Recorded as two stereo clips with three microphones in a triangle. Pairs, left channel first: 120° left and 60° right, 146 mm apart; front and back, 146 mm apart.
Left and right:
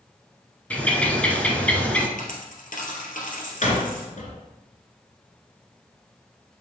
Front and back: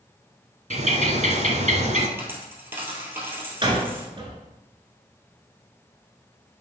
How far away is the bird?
About 1.0 m.